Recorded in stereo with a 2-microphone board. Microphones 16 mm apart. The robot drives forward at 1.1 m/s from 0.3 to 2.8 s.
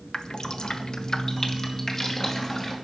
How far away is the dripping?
About 0.9 m.